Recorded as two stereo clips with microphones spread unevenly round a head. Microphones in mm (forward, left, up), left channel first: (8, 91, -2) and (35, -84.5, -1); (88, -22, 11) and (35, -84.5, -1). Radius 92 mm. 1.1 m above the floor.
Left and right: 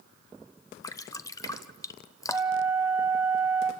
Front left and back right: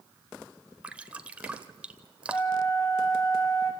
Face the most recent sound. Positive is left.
turn(degrees=-5)